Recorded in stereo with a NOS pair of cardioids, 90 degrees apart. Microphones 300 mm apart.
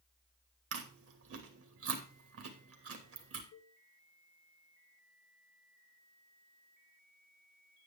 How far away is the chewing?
About 2.5 m.